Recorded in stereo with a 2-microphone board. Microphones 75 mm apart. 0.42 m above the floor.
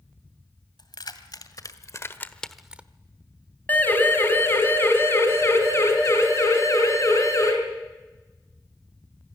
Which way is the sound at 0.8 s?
70° left (ahead or behind).